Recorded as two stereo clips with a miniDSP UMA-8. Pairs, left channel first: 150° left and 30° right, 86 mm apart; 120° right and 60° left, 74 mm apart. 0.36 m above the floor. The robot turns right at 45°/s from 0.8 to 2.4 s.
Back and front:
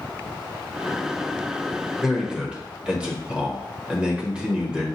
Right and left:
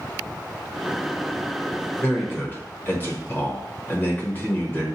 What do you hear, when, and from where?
2.0 s a man speaking: 115° right, 1.0 m; by 4.9 s 100° right, 1.0 m